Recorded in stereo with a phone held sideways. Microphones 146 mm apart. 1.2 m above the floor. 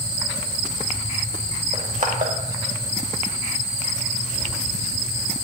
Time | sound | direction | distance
1.7 | crushing | 65° right (ahead or behind) | 1.9 m